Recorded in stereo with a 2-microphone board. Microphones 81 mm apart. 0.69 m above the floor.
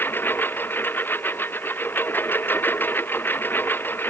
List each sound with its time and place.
0.0 s a lawn mower: 25° left (ahead or behind)